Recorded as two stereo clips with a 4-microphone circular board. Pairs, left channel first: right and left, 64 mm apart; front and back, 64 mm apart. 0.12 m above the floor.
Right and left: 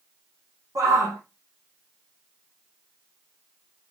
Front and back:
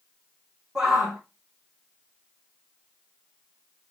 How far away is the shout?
About 5.5 m.